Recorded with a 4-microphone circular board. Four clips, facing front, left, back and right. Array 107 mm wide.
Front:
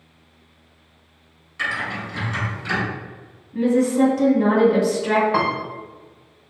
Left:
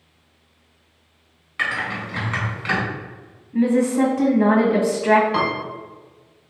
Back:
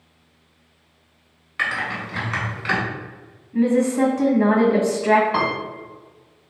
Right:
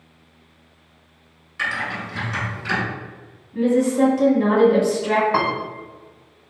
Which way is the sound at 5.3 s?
80° right.